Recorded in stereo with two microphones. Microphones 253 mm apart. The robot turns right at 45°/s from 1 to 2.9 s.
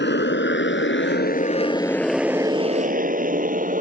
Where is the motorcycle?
45° left (ahead or behind); by 3.8 s 35° right (ahead or behind).